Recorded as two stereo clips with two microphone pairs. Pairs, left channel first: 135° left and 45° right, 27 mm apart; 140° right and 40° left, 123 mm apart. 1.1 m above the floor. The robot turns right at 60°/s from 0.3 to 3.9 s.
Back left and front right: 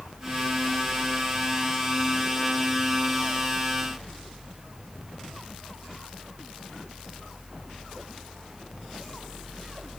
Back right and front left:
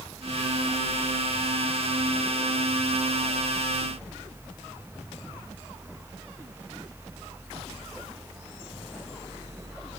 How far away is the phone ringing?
No phone ringing in this recording.